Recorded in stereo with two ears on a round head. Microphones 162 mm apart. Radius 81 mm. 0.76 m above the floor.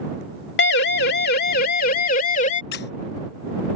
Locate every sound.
0.6 s a siren: 65° left (ahead or behind); by 2.6 s 40° left (ahead or behind)
2.7 s a squeak: 60° left (ahead or behind)